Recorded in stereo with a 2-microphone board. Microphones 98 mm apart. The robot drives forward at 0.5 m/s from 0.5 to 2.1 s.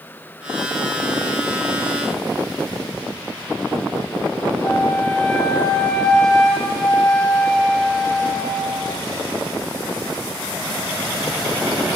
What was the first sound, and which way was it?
A flute, 5° left (ahead or behind).